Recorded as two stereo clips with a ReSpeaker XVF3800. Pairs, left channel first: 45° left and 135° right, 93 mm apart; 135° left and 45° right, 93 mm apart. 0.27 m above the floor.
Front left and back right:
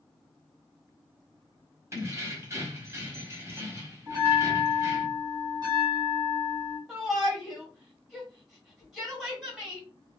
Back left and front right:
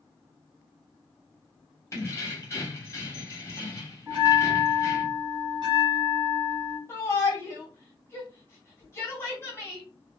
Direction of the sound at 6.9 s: 145° left.